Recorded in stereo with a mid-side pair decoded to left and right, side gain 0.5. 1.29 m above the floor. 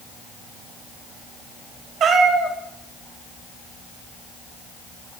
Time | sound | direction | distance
2.0 | a cat meowing | 55° right | 1.5 m